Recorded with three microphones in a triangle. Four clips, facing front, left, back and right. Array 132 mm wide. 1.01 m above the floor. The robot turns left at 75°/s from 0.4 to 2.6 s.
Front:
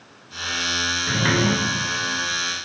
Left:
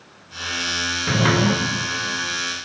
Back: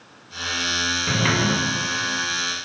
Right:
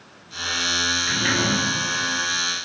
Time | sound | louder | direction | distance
1.1 | a sliding door | left 6 dB, front 1 dB | 115° left | 3 m